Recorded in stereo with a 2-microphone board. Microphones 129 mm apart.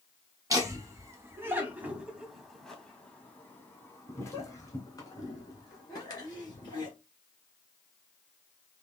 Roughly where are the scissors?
No scissors in this recording.